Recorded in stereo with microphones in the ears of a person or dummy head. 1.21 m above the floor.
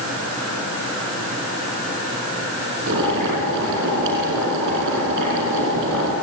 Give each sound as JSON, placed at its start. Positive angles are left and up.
{"t": 2.9, "sound": "boiling", "side_deg": -60, "distance_m": 6.5}